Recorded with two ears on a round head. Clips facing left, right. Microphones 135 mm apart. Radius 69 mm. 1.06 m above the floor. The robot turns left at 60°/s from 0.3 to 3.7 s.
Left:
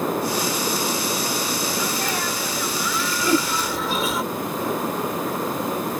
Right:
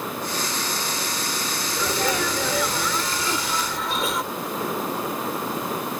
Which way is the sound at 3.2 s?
80° left.